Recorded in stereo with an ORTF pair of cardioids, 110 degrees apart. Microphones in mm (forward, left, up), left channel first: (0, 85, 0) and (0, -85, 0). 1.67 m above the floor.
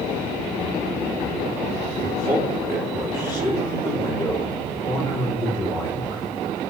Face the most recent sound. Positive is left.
turn(degrees=20)